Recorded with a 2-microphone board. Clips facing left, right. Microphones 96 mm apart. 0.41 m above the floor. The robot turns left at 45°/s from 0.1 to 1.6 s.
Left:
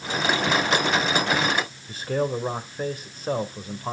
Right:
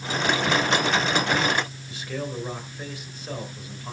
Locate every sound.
1.9 s a man speaking: 40° left (ahead or behind), 1.9 m